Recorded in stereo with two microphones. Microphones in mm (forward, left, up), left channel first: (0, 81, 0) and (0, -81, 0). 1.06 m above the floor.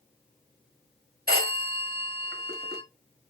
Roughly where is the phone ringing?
Right.